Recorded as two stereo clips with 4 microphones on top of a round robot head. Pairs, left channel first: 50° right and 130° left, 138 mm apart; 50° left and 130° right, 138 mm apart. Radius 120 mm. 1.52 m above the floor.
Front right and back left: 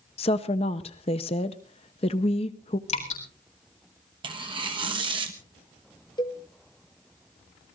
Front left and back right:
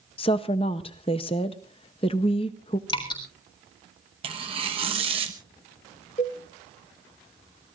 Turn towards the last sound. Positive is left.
turn(degrees=10)